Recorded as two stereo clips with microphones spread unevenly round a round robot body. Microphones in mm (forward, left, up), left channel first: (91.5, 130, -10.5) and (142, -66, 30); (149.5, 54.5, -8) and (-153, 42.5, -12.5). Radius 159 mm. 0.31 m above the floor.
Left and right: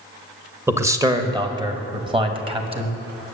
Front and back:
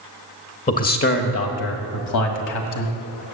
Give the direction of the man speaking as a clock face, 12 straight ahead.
12 o'clock.